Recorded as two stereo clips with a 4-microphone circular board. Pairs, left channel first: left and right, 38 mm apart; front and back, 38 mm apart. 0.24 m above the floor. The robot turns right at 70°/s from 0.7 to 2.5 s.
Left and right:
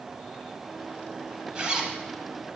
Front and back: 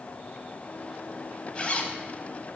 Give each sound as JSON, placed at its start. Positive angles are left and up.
{"t": 1.6, "sound": "a zipper", "azimuth_deg": -45, "distance_m": 0.7}